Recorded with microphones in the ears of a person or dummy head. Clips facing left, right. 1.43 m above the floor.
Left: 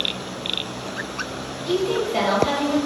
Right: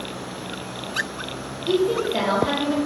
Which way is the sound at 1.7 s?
5° right (ahead or behind).